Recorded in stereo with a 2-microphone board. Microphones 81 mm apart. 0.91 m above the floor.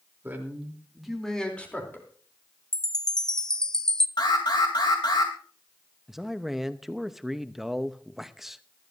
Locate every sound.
0.2 s a man speaking: 25° right (ahead or behind), 3 m; by 2.1 s 25° left (ahead or behind), 3.5 m
2.7 s a chime: 5° left (ahead or behind), 0.6 m
4.2 s an alarm: 55° left (ahead or behind), 3 m
6.1 s a man speaking: 5° right (ahead or behind), 0.8 m